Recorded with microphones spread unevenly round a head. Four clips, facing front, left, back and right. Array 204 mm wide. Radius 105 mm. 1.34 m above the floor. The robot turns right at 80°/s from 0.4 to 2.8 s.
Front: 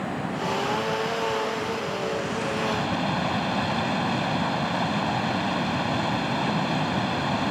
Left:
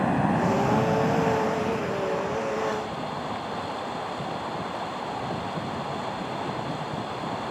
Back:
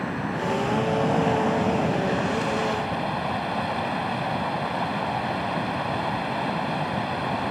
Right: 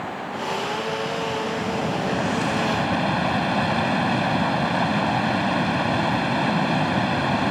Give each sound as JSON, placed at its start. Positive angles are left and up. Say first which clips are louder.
{"t": 0.0, "sound": "running water", "louder": "left 6 dB, back 1 dB", "azimuth_deg": 95}